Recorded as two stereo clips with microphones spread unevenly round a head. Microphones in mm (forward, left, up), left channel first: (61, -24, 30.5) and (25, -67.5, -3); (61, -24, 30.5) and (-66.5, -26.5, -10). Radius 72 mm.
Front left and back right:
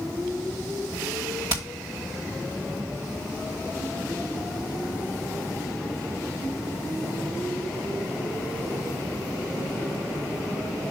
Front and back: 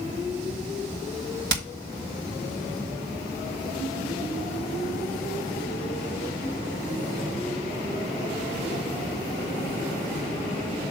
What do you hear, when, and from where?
1.5 s hammering: 165° left, 1.8 m